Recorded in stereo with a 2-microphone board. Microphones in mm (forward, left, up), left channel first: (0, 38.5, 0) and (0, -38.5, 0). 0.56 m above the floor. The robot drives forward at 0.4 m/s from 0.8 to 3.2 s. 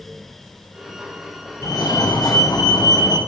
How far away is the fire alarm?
About 6.5 m.